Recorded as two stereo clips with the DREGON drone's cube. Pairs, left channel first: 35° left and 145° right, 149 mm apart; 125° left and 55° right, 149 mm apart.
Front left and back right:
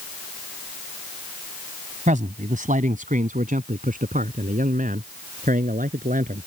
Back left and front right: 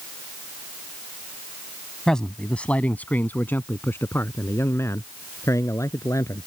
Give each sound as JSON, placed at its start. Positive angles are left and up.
{"t": 2.1, "sound": "a man speaking", "azimuth_deg": -150}